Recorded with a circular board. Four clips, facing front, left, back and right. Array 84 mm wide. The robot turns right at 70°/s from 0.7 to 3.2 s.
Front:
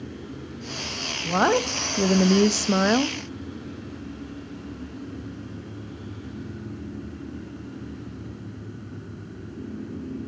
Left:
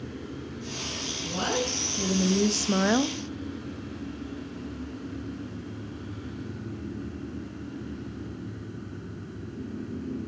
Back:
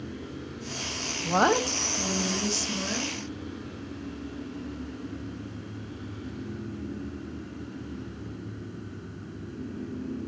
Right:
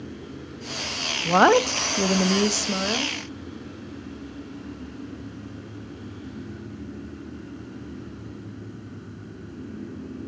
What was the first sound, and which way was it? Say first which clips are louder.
A woman speaking: right 13 dB, front 2 dB; 100° right.